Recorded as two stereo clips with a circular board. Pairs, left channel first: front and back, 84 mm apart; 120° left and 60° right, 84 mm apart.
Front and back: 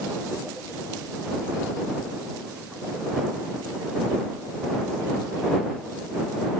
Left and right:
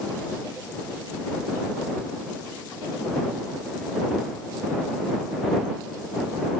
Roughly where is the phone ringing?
No phone ringing in this recording.